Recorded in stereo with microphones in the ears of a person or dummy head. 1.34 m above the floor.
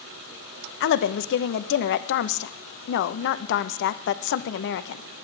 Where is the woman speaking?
65° left (ahead or behind), 0.8 m.